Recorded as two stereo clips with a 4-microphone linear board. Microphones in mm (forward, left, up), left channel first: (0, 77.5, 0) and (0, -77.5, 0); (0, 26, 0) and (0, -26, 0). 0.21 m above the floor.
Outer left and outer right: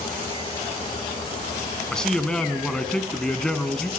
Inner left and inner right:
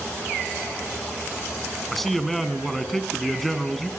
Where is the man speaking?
5° left (ahead or behind), 1.9 m.